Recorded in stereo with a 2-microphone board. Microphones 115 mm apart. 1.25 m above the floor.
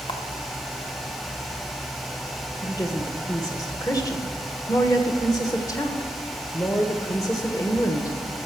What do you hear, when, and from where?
0.1 s a camera shutter: 50° left (ahead or behind), 1.3 m
2.6 s a woman speaking: 30° left (ahead or behind), 1.5 m